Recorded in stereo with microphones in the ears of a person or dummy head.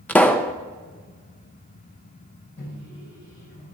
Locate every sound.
0.1 s a pop: 10° left (ahead or behind), 0.5 m
2.6 s a microwave: 65° left (ahead or behind), 6 m